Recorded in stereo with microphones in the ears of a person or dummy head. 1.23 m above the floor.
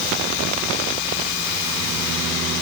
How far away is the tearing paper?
No tearing paper in this recording.